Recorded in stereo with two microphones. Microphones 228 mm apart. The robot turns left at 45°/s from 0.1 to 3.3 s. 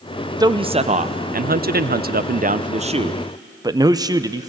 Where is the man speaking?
25° right, 0.6 m; by 4.5 s 155° right, 0.6 m.